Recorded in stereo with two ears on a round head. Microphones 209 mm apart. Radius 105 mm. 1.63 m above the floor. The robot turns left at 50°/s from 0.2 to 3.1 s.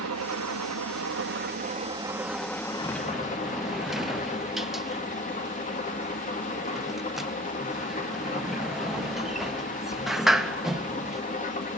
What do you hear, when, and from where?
0.0 s an engine running: 70° right, 1.9 m; by 11.8 s 145° left, 1.9 m
2.8 s a sliding door: 15° left (ahead or behind), 0.5 m; by 11.2 s centre (ahead or behind), 0.5 m